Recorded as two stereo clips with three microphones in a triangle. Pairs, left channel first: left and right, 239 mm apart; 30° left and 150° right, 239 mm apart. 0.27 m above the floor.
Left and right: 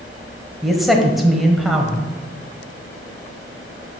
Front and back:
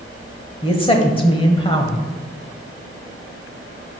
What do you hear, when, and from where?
0.6 s a man speaking: straight ahead, 0.9 m